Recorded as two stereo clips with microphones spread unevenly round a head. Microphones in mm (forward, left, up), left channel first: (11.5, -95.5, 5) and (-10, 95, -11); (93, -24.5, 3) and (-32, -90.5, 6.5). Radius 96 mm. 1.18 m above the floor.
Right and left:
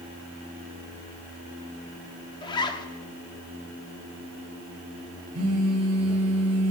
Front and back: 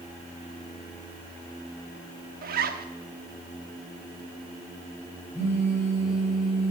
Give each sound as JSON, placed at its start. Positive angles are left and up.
{"t": 2.4, "sound": "a zipper", "azimuth_deg": -150, "distance_m": 1.2}
{"t": 5.3, "sound": "a phone buzzing", "azimuth_deg": 105, "distance_m": 4.5}